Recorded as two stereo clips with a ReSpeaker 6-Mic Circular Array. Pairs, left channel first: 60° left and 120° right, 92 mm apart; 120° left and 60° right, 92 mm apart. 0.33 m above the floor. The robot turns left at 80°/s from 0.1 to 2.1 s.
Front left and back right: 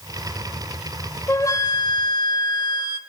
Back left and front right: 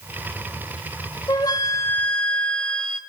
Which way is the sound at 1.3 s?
115° left.